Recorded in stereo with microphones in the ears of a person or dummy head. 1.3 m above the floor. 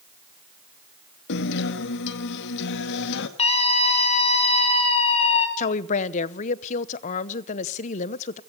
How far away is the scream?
About 3.5 m.